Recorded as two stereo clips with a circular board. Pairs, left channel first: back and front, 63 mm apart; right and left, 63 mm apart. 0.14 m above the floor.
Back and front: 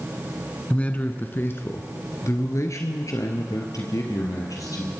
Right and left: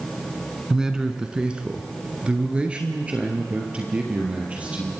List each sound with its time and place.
0.7 s a man speaking: 150° left, 1.1 m; by 4.9 s 160° left, 3 m